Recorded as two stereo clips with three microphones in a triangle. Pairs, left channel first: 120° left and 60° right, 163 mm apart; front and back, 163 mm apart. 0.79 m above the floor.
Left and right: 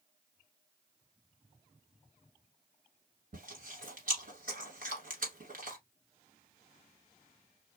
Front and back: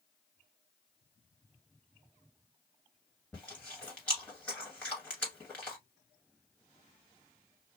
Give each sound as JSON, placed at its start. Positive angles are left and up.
{"t": 3.3, "sound": "chewing", "azimuth_deg": -80, "distance_m": 1.5}